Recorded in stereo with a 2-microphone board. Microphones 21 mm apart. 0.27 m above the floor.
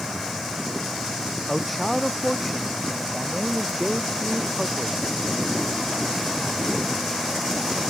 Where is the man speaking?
Centre (ahead or behind); by 5.0 s 5° left (ahead or behind).